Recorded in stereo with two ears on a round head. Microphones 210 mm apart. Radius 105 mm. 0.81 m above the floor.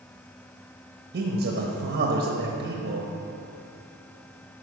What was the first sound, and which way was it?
A man speaking, 45° right (ahead or behind).